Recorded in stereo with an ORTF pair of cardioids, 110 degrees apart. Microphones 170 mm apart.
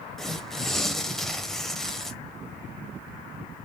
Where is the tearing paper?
Straight ahead, 0.7 m.